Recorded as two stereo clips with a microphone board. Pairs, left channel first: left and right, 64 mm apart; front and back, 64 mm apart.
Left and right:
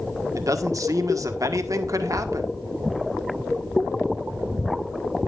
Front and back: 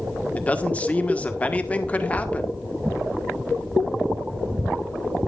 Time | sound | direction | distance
0.3 | a man speaking | 65° right | 1.5 m